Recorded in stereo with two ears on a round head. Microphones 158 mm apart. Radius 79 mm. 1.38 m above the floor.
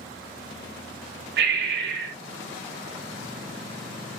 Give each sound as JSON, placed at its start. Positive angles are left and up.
{"t": 1.4, "sound": "breathing", "side_deg": -65, "distance_m": 1.2}